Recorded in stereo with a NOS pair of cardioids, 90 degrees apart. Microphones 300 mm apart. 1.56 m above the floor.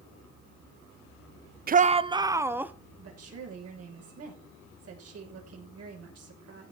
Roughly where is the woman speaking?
Ahead right.